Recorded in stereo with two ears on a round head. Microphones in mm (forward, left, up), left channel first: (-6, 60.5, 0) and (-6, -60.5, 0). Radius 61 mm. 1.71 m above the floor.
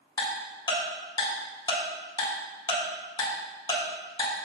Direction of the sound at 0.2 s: 30° left (ahead or behind).